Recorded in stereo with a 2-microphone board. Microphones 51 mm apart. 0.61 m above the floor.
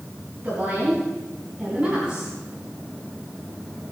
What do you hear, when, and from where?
0.4 s a woman speaking: 30° right (ahead or behind), 5.5 m; by 2.3 s 20° right (ahead or behind), 4.5 m